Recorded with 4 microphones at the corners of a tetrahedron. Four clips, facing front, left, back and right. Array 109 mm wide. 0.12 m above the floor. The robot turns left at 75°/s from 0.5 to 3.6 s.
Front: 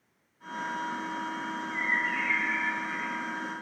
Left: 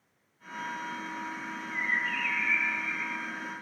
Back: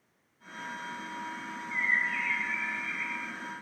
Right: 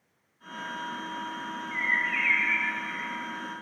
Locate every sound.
1.7 s a bird: 55° left, 1.3 m; by 3.3 s 70° right, 1.3 m